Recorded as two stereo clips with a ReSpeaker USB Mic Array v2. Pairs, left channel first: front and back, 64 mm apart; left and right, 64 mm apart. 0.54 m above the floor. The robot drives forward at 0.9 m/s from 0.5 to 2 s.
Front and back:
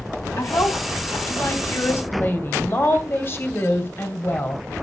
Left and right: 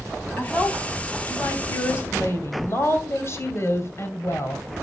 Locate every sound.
0.4 s a woman speaking: 30° left, 3.5 m; by 4.6 s 50° left, 2.5 m